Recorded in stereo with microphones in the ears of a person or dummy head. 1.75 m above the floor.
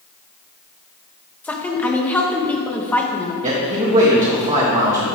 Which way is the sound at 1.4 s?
10° left (ahead or behind).